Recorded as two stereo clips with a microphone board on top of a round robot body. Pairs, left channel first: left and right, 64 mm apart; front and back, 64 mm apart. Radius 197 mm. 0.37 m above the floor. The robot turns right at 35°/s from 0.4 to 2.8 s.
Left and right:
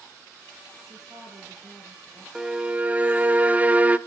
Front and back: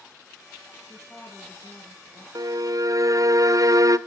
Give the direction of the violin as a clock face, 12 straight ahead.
6 o'clock.